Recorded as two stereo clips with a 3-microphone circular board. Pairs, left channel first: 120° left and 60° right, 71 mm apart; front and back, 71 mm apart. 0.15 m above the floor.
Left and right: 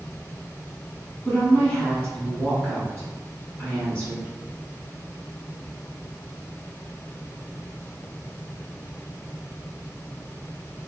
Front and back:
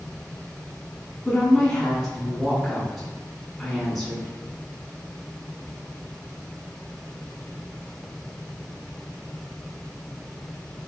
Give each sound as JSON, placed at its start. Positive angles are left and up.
{"t": 1.2, "sound": "a woman speaking", "azimuth_deg": 80, "distance_m": 1.3}